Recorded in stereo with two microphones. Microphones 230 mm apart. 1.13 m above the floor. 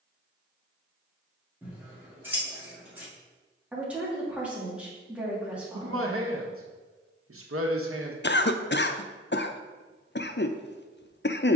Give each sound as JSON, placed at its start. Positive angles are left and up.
{"t": 1.6, "sound": "scissors", "side_deg": -10, "distance_m": 2.5}
{"t": 3.7, "sound": "a woman speaking", "side_deg": -5, "distance_m": 2.0}
{"t": 5.7, "sound": "a man speaking", "side_deg": -70, "distance_m": 1.2}
{"t": 8.2, "sound": "a cough", "side_deg": 50, "distance_m": 0.5}